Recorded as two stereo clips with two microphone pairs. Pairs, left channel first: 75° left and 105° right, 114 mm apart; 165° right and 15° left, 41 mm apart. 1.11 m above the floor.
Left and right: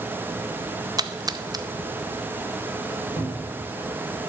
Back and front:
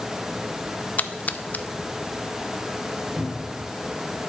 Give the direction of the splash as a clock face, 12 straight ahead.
5 o'clock.